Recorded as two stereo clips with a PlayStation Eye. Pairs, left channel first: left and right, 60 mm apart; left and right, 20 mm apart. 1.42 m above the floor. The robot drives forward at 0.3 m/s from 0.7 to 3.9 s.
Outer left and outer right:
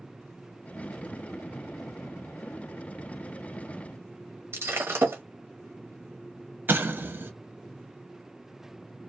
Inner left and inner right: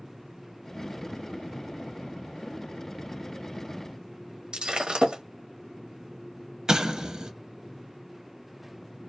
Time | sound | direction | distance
4.5 | breaking glass | 45° right (ahead or behind) | 0.9 m
6.7 | an explosion | 35° right (ahead or behind) | 0.6 m